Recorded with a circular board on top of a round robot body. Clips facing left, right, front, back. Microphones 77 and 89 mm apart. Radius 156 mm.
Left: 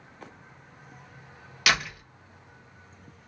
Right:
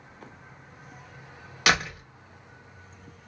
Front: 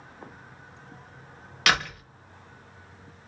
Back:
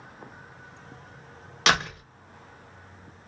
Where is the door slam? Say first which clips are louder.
Right 2 dB, back 1 dB; 125° right, 1.1 m.